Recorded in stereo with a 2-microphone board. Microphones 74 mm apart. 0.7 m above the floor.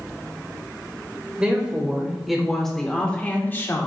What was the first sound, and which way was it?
A woman speaking, 15° right (ahead or behind).